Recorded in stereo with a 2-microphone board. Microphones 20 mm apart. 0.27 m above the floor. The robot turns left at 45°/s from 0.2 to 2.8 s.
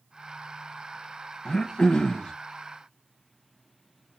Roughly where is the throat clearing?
Behind left.